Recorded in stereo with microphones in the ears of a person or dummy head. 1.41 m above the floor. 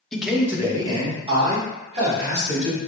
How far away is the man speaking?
About 0.5 m.